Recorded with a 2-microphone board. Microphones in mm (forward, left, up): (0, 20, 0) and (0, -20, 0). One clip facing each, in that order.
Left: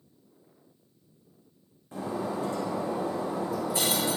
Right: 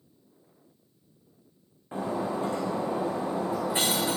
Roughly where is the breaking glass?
Right.